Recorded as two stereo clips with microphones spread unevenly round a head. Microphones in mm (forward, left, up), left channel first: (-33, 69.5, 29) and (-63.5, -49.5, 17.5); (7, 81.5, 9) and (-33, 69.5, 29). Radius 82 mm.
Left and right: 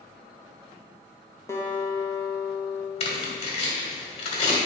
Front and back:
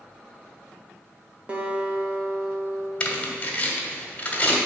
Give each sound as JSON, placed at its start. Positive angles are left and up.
{"t": 1.5, "sound": "a guitar", "azimuth_deg": 145, "distance_m": 1.4}
{"t": 3.0, "sound": "tearing paper", "azimuth_deg": 95, "distance_m": 1.6}